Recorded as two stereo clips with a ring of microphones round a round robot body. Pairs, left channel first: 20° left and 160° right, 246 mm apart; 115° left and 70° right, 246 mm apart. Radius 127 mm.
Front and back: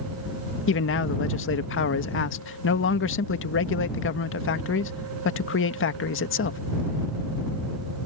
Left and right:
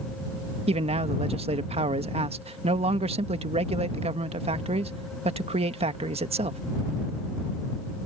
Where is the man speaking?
5° right.